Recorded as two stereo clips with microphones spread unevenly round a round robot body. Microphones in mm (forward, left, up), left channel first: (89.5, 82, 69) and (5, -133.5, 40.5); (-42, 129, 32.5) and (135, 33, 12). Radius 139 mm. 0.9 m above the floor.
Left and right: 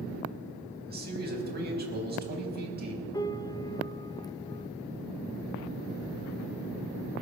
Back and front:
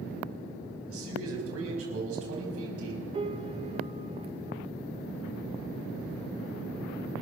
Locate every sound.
0.9 s a man speaking: 65° right, 5 m
3.1 s a piano: 5° right, 0.7 m